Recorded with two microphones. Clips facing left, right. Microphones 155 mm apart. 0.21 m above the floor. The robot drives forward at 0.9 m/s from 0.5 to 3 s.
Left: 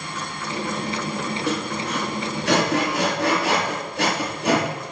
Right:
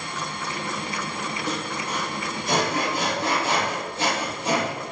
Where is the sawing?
70° left (ahead or behind), 5 m.